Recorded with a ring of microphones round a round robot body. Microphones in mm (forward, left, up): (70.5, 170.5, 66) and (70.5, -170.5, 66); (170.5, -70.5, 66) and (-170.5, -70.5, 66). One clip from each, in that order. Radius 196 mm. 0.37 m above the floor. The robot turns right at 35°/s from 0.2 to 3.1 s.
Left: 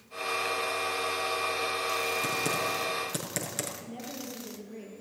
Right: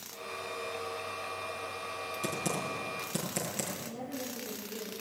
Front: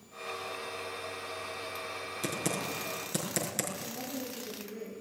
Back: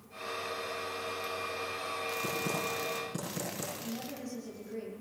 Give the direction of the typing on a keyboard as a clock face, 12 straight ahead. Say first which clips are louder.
Left 5 dB, front 3 dB; 11 o'clock.